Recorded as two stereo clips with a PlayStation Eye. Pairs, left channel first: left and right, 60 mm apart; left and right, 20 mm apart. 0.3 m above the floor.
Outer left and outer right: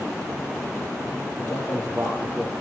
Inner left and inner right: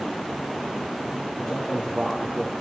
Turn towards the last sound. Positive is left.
turn(degrees=20)  # may be behind; listen again after turning